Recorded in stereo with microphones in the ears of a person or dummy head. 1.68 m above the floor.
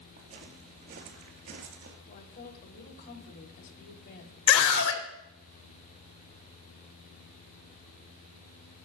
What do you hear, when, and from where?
0.2 s footsteps: 45° right (ahead or behind), 2.5 m; by 2.0 s 50° right (ahead or behind), 2.5 m
2.1 s a woman speaking: 55° left (ahead or behind), 3.5 m
4.5 s a scream: 70° left (ahead or behind), 2.5 m